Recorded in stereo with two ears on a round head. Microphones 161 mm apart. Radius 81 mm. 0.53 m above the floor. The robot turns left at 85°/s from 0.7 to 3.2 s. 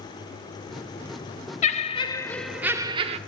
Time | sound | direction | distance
1.6 | laughter | 75° left | 1.0 m